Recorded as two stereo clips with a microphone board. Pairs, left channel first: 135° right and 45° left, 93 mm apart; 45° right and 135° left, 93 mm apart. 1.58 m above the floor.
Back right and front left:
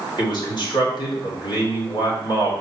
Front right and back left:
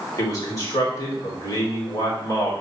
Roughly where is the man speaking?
Right.